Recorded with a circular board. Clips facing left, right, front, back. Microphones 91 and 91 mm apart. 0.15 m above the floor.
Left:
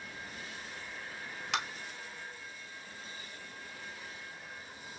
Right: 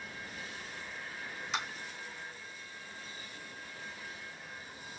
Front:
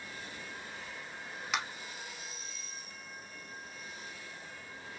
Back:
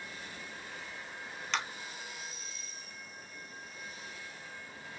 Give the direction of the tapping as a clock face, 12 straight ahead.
9 o'clock.